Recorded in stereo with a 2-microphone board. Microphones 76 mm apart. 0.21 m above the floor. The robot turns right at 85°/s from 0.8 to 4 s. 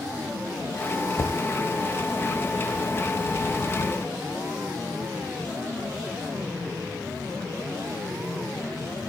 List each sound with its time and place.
1.2 s knocking: 50° left (ahead or behind); by 1.4 s 70° left (ahead or behind)